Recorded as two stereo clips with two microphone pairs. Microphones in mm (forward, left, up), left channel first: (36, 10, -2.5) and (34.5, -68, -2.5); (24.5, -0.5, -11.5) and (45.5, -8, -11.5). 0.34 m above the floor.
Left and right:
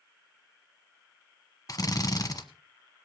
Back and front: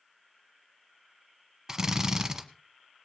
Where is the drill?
50° left, 1.2 m.